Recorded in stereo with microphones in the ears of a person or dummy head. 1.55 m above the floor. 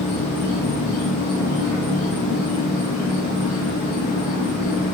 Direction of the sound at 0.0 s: 45° left (ahead or behind).